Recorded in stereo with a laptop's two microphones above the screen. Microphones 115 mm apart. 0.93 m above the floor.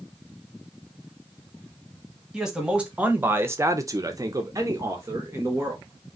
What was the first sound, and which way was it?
A man speaking, 5° right (ahead or behind).